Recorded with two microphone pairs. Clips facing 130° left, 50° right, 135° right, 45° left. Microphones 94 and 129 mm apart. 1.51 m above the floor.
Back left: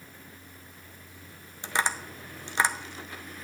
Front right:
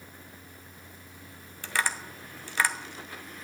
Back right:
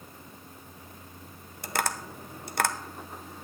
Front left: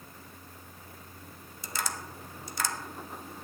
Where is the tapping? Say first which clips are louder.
Back left 2 dB, back right 6 dB; 160° right, 0.7 m.